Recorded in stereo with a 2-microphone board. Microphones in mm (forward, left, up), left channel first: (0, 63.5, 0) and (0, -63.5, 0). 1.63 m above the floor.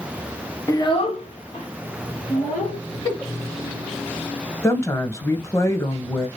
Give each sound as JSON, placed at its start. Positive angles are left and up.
{"t": 0.7, "sound": "a child speaking", "side_deg": 25, "distance_m": 1.0}
{"t": 3.0, "sound": "a giggle", "side_deg": 30, "distance_m": 1.9}
{"t": 4.6, "sound": "a woman speaking", "side_deg": 25, "distance_m": 1.4}